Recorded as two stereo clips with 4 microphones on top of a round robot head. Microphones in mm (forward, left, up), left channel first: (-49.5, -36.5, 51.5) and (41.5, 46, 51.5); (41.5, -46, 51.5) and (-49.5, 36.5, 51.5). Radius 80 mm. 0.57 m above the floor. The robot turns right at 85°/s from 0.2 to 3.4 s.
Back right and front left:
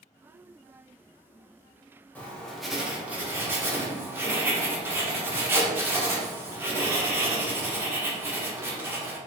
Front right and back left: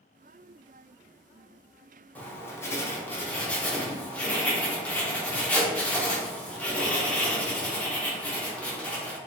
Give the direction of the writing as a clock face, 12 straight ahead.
3 o'clock.